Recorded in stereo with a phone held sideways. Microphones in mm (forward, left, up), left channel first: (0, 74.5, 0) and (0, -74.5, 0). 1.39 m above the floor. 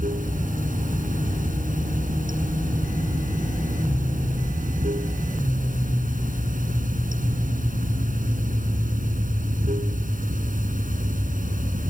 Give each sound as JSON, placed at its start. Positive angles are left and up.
{"t": 0.0, "sound": "running water", "side_deg": -75}